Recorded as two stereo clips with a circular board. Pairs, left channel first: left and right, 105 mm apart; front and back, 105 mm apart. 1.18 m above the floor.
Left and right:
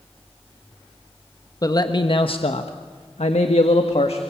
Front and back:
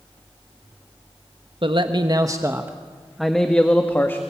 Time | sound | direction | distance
1.6 | a man speaking | 145° left | 1.3 m